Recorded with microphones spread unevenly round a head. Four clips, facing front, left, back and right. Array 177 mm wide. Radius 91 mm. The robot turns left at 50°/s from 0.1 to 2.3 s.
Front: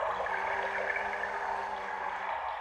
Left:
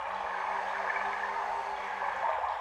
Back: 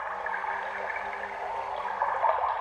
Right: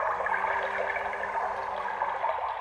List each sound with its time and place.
0.0 s running water: 55° right, 3.5 m; by 2.6 s 165° right, 3.5 m